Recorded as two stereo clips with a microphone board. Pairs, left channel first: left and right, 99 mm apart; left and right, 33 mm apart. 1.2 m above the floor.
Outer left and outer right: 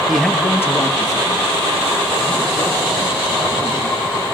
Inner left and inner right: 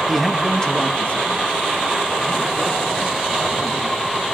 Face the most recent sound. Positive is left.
turn(degrees=55)  # may be behind; listen again after turning